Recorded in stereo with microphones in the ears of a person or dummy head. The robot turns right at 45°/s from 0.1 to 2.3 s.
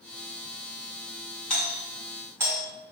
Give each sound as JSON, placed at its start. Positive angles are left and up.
{"t": 1.5, "sound": "a doorbell", "side_deg": 10, "distance_m": 1.1}